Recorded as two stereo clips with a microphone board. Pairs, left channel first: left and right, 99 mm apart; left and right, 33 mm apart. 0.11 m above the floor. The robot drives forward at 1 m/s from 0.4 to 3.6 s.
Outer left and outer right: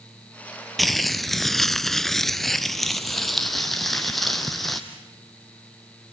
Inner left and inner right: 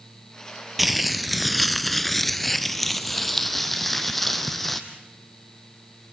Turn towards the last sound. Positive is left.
turn(degrees=0)  # may be behind; listen again after turning